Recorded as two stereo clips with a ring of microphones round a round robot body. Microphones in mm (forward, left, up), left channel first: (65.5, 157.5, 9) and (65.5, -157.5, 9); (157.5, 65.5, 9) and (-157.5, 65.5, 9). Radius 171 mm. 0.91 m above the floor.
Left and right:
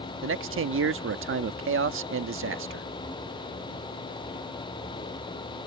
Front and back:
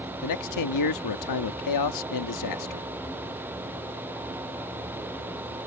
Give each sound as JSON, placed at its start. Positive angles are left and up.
{"t": 0.2, "sound": "a man speaking", "azimuth_deg": -40}